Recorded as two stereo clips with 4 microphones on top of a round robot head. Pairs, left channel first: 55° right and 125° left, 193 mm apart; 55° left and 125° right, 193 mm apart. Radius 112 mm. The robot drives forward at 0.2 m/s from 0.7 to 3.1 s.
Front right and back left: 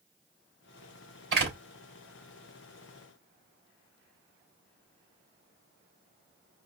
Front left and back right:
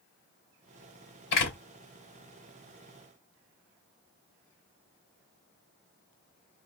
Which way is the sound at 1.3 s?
90° left.